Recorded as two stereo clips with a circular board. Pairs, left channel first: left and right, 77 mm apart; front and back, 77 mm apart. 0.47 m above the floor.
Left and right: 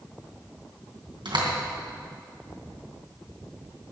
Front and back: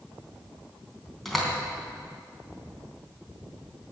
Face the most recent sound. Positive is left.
turn(degrees=-85)